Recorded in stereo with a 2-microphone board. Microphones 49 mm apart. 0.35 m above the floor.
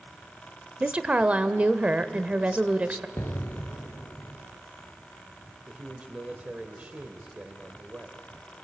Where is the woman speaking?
25° right (ahead or behind), 0.9 m.